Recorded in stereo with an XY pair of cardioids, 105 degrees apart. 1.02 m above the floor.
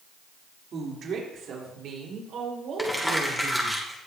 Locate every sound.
0.7 s a woman speaking: 60° right, 3 m; by 3.8 s 70° right, 6 m
2.8 s crumpling: 5° left, 2.5 m